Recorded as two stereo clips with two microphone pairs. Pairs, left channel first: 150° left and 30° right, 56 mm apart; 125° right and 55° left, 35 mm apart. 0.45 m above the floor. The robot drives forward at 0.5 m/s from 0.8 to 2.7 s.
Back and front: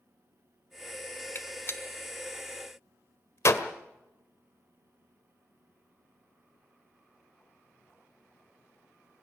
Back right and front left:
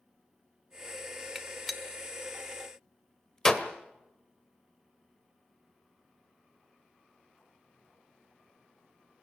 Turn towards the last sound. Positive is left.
turn(degrees=160)